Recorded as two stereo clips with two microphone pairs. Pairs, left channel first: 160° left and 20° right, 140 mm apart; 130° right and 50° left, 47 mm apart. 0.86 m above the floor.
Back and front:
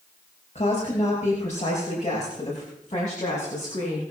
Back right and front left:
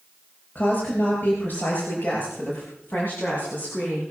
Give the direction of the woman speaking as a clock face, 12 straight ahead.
6 o'clock.